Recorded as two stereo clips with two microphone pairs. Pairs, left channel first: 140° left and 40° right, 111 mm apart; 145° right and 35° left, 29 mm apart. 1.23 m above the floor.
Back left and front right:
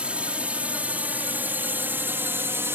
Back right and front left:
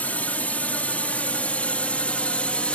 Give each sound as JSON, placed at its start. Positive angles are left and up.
{"t": 0.0, "sound": "a drone", "azimuth_deg": -115}